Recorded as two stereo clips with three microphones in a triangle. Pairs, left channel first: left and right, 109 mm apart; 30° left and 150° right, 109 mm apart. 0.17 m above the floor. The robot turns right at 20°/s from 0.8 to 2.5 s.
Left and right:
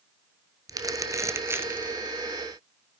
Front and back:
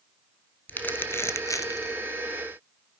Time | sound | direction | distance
0.7 | crumpling | 40° right | 1.0 m